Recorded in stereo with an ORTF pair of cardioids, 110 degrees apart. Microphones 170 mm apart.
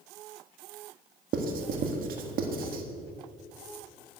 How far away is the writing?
About 1.7 m.